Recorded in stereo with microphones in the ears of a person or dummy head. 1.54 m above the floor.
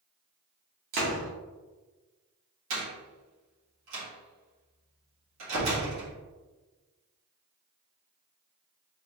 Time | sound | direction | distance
0.9 | a door slam | 50° right (ahead or behind) | 1.5 m
2.7 | a door slam | 70° right (ahead or behind) | 1.9 m